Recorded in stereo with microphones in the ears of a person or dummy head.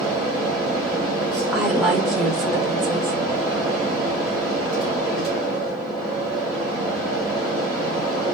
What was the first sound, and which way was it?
A fan, 5° left (ahead or behind).